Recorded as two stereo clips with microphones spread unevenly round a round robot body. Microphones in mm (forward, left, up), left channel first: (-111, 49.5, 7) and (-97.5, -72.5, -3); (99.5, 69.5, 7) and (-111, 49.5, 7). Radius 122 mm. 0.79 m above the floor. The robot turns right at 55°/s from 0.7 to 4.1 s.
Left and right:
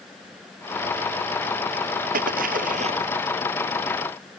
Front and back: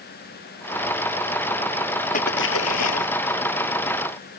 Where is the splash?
55° right; by 3.1 s 5° right.